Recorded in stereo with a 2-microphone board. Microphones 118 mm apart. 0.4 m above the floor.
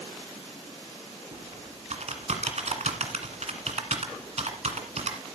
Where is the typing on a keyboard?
70° right (ahead or behind), 1.7 m.